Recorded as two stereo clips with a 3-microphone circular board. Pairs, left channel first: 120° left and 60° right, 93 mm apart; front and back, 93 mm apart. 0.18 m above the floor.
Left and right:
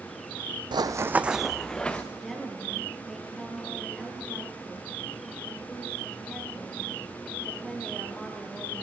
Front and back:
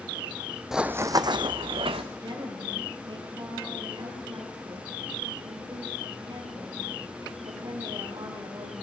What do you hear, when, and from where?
0.7 s running footsteps: 95° right, 0.6 m; by 2.0 s 165° right, 1.2 m
2.1 s a woman speaking: 150° right, 3 m